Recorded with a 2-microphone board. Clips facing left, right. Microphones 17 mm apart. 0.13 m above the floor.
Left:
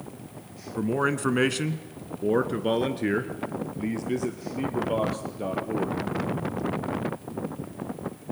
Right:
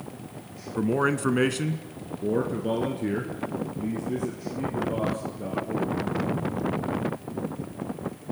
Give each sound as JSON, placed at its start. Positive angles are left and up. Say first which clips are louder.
{"t": 0.8, "sound": "a man speaking", "louder": "right 1 dB", "side_deg": -10, "distance_m": 1.1}